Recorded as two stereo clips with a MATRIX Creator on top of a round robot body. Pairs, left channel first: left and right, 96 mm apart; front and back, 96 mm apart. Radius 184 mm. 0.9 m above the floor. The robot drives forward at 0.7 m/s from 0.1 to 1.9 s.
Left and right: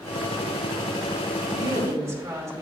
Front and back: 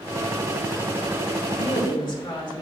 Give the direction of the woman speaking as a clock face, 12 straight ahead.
1 o'clock.